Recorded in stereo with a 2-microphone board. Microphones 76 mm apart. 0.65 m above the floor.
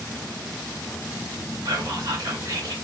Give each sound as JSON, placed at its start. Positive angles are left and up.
{"t": 1.6, "sound": "whispering", "side_deg": -60, "distance_m": 1.3}